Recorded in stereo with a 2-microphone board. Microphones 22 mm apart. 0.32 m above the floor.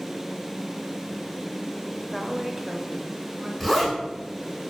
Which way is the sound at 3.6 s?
5° left (ahead or behind).